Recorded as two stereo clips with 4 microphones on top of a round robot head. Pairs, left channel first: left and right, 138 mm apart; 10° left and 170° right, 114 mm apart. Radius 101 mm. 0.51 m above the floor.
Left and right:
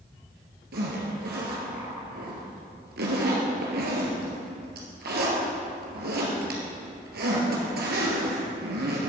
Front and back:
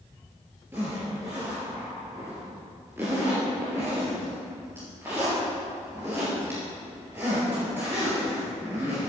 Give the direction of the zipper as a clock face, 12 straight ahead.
3 o'clock.